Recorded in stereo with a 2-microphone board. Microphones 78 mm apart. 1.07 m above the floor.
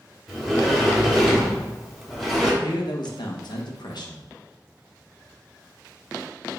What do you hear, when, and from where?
0.3 s a sliding door: centre (ahead or behind), 0.8 m
2.6 s a man speaking: 65° left (ahead or behind), 0.7 m